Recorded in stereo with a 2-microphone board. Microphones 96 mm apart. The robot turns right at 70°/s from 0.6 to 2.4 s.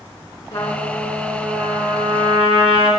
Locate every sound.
0.5 s a trumpet: 140° left, 2.5 m; by 2.9 s 95° right, 2.5 m